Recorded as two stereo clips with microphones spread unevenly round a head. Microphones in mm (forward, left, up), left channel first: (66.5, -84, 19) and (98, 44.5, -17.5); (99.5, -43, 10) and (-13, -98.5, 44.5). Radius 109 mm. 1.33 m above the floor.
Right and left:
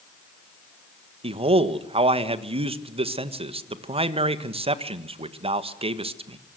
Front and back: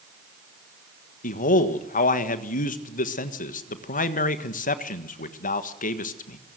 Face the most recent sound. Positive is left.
turn(degrees=30)